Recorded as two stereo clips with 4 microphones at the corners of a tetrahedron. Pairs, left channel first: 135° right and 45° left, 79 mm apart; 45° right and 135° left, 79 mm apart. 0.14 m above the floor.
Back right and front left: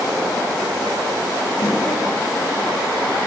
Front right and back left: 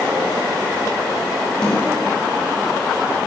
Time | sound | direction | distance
1.6 | a snare drum | 125° right | 4.5 m